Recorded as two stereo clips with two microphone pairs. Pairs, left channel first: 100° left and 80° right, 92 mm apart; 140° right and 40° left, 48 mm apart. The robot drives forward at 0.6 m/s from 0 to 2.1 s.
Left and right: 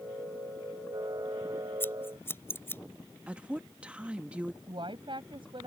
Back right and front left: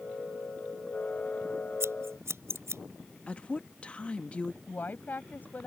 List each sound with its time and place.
1.8 s scissors: 35° left; by 2.8 s 40° left
3.3 s a woman speaking: 140° right
4.7 s a woman speaking: 95° right